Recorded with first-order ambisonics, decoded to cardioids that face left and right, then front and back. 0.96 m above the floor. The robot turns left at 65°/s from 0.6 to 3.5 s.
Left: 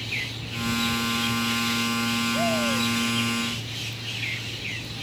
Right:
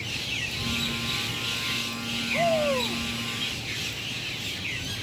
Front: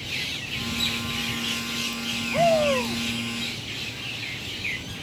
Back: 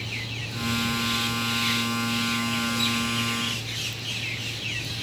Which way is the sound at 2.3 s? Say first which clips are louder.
Right 5 dB, front 7 dB; straight ahead.